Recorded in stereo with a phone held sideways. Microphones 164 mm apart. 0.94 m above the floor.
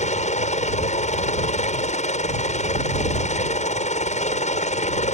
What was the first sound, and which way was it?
A helicopter, 45° left (ahead or behind).